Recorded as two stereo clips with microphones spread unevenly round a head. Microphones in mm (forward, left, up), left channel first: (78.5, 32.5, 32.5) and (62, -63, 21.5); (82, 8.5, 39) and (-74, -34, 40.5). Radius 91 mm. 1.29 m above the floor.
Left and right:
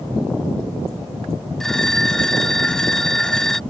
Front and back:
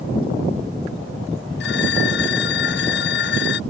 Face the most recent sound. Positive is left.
turn(degrees=-5)